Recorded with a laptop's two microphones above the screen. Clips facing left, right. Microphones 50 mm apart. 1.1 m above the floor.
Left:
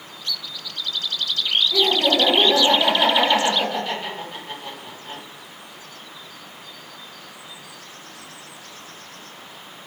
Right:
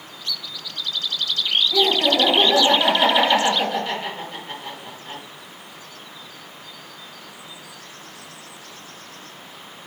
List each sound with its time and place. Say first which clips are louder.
1.7 s laughter: even; 5° right (ahead or behind), 1.1 m